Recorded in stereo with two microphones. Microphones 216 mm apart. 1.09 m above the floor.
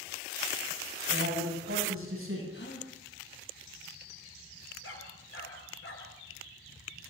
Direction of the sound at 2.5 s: 55° left (ahead or behind).